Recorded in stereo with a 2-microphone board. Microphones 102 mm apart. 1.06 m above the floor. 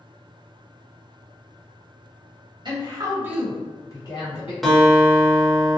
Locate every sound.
2.6 s a woman speaking: 45° right (ahead or behind), 1.1 m; by 4.5 s 60° left (ahead or behind), 1.2 m
4.6 s a guitar: centre (ahead or behind), 0.6 m